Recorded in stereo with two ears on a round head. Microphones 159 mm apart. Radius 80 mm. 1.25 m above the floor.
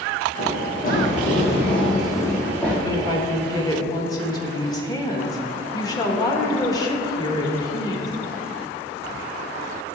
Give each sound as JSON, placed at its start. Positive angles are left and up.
{"t": 0.4, "sound": "running footsteps", "side_deg": 55, "distance_m": 2.5}
{"t": 2.9, "sound": "a woman speaking", "side_deg": 20, "distance_m": 1.3}